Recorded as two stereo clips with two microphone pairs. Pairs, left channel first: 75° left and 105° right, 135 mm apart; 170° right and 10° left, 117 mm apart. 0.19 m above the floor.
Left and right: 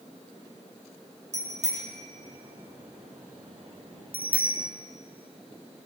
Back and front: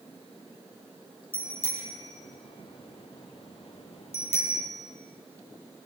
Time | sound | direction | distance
1.3 | a bicycle bell | 130° right | 7 m